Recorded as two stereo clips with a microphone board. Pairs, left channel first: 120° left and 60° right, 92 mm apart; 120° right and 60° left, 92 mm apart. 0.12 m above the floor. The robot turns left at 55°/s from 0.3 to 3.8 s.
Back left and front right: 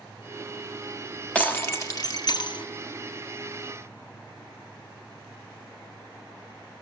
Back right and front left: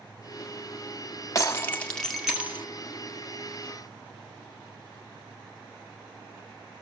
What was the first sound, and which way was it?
Breaking glass, 165° right.